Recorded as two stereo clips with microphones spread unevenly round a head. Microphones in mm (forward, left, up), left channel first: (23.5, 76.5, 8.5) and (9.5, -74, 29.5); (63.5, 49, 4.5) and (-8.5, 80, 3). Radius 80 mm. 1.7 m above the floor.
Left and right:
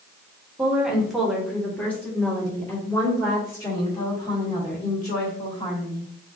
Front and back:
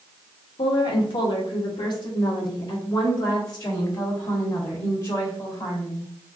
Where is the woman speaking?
20° right, 1.1 m; by 6.1 s 20° left, 4 m.